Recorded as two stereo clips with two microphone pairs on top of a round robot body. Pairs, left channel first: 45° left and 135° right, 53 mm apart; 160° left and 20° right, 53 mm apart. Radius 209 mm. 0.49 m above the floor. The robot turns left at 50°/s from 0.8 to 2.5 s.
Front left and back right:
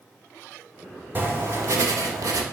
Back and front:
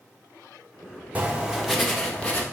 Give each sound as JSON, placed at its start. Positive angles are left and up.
{"t": 1.1, "sound": "writing", "azimuth_deg": -80, "distance_m": 1.8}